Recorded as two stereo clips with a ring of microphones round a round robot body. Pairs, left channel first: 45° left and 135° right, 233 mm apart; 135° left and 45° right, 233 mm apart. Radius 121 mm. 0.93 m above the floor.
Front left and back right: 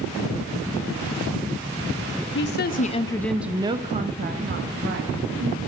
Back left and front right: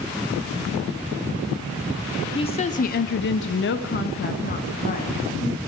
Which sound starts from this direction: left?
A woman speaking, at 2.4 s.